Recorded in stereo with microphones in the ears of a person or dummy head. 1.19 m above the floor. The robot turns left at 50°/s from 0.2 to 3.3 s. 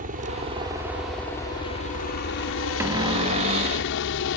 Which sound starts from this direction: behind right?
A helicopter, at 0.0 s.